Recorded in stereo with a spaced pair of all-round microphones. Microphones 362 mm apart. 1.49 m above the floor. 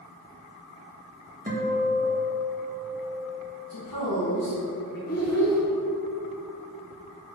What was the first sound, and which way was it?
A guitar, 20° right (ahead or behind).